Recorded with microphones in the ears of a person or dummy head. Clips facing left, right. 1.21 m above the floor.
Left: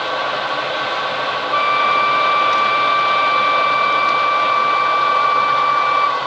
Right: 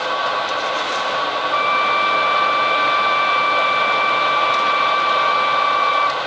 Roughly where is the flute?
Right.